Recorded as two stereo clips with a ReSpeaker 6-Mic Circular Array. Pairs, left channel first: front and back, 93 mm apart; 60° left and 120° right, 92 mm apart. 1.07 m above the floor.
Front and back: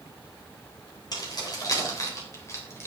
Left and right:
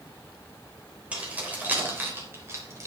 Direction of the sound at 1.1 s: 45° right.